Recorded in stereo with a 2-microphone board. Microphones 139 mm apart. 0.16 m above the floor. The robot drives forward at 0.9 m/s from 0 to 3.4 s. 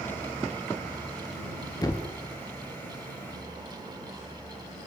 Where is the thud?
25° left (ahead or behind), 0.7 m; by 2.1 s 35° left (ahead or behind), 0.5 m.